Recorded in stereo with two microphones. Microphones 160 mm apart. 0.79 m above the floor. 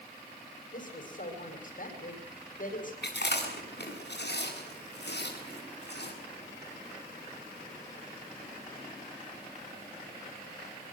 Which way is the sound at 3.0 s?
85° left.